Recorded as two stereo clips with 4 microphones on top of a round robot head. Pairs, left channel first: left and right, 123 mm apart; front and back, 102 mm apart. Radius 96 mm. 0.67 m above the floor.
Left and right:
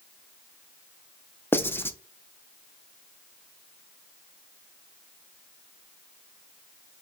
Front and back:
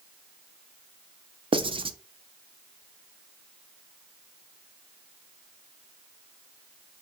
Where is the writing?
160° left, 0.7 m.